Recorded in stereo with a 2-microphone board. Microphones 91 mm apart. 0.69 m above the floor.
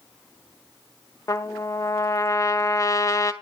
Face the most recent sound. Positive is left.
turn(degrees=35)  # may be behind; listen again after turning